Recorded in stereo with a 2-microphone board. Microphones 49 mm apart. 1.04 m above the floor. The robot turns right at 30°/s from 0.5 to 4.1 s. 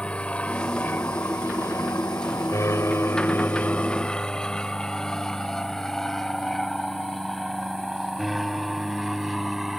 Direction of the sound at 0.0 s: 20° left (ahead or behind).